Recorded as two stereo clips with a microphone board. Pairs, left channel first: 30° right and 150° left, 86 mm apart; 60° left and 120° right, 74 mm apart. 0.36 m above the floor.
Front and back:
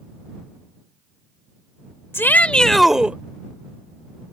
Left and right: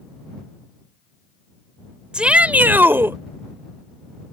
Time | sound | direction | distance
2.1 | a shout | 55° right | ?